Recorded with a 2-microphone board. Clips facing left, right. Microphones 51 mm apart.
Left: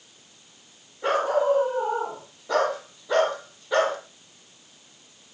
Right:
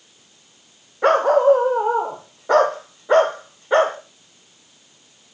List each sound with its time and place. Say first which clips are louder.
1.0 s a dog barking: right 8 dB; 60° right (ahead or behind), 4.5 m; by 4.0 s 35° right (ahead or behind), 4 m